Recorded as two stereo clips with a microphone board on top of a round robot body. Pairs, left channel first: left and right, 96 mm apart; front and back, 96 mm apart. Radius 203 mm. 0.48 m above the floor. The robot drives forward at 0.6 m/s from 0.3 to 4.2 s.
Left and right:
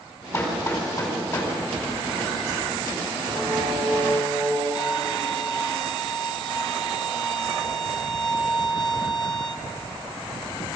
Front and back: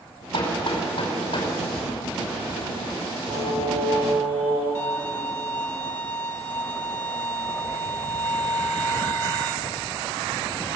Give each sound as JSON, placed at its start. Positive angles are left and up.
{"t": 0.3, "sound": "hammering", "azimuth_deg": 30, "distance_m": 5.0}
{"t": 3.3, "sound": "singing", "azimuth_deg": -165, "distance_m": 5.0}
{"t": 4.8, "sound": "a violin", "azimuth_deg": 55, "distance_m": 1.7}